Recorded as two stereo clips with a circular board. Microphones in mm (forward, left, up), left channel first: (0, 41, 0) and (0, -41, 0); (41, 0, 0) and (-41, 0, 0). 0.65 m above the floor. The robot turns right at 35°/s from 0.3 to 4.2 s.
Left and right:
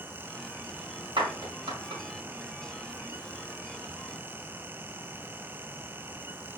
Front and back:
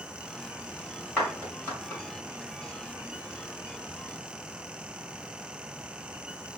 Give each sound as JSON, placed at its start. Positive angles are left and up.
{"t": 1.2, "sound": "a clap", "azimuth_deg": -80, "distance_m": 2.5}